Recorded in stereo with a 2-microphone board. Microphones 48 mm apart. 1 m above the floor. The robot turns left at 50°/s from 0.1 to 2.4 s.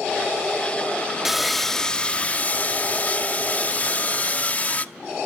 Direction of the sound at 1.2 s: 170° right.